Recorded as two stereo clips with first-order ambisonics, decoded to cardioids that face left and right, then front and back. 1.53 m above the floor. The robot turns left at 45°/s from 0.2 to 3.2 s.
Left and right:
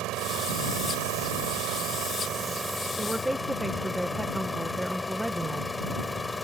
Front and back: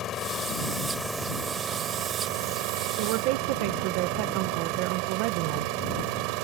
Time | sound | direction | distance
0.0 | an engine running | 55° right | ?
3.0 | a woman speaking | 165° right | ?